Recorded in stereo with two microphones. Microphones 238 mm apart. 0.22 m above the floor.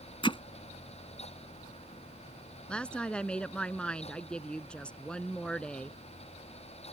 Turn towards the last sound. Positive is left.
turn(degrees=5)  # may be behind; listen again after turning